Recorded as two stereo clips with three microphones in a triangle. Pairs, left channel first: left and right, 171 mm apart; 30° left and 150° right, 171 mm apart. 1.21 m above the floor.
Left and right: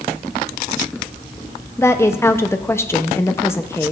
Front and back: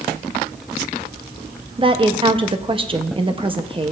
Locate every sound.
1.8 s a woman speaking: 160° left, 0.7 m